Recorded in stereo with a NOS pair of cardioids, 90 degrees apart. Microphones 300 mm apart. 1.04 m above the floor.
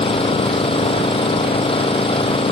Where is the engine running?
20° left.